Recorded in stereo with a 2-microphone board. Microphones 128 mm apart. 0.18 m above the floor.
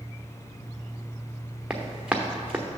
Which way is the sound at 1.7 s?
5° right (ahead or behind).